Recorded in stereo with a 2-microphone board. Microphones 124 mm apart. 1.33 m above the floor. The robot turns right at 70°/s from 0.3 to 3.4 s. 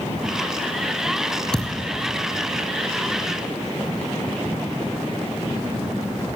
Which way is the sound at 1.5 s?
5° left (ahead or behind).